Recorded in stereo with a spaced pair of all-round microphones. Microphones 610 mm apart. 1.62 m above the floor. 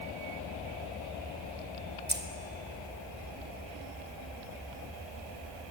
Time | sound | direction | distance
2.1 | keys jangling | 15° right (ahead or behind) | 0.8 m